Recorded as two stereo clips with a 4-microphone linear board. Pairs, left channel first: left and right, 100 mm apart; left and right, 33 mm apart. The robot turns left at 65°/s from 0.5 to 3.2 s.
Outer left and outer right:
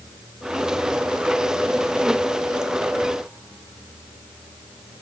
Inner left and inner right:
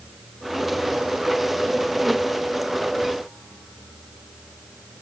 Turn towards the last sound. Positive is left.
No sound to turn to.